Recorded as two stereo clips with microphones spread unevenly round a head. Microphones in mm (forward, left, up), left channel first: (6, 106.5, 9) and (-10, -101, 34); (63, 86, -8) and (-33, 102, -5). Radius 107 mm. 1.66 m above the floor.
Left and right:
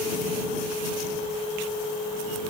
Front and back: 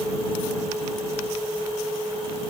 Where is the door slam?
No door slam in this recording.